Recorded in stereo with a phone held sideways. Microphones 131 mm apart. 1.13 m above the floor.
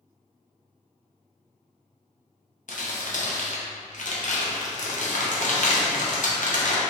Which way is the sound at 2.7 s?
70° left (ahead or behind).